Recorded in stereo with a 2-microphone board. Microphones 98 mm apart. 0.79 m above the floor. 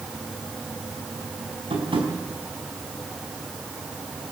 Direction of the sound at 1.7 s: 65° right (ahead or behind).